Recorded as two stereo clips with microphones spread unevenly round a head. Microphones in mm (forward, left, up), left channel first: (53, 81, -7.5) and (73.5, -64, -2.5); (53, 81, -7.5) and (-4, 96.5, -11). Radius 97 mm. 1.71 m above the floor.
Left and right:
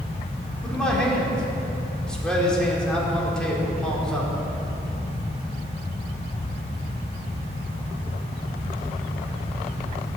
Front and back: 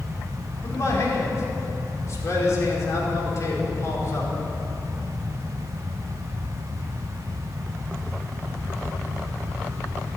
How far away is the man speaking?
About 5 m.